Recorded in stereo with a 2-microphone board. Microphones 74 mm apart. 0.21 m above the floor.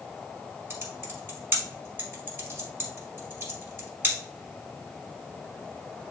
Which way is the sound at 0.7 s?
30° right (ahead or behind).